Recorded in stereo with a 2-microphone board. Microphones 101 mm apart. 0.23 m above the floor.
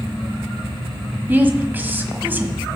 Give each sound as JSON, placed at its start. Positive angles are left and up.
{"t": 1.3, "sound": "a woman speaking", "side_deg": -20, "distance_m": 1.5}